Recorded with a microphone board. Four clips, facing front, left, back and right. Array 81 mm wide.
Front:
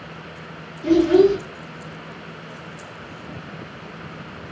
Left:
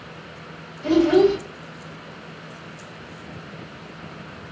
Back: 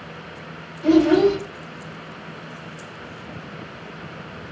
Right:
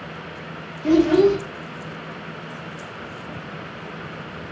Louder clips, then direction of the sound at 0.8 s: Right 1 dB, front 1 dB; 145° left.